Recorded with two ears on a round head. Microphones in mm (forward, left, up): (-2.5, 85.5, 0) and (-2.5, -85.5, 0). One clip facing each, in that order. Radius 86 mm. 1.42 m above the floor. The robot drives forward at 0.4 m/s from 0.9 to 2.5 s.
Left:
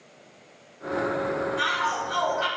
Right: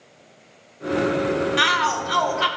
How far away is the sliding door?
I don't hear a sliding door.